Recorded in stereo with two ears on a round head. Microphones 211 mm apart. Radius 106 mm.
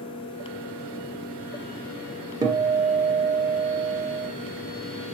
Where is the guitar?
15° right (ahead or behind), 2 m.